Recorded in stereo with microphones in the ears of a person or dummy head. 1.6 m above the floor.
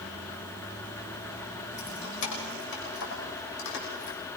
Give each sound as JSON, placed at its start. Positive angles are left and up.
{"t": 1.8, "sound": "keys jangling", "side_deg": 70, "distance_m": 5.0}